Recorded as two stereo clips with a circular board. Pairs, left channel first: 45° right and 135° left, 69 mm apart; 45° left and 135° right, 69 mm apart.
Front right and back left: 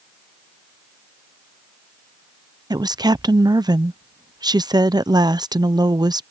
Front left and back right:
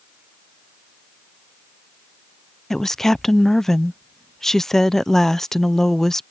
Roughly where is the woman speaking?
Behind left.